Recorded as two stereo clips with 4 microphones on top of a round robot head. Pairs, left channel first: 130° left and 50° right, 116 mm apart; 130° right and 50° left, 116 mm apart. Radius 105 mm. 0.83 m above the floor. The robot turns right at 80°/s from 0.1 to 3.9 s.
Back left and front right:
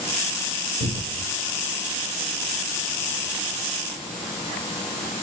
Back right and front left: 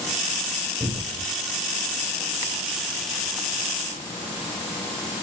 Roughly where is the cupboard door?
Ahead right.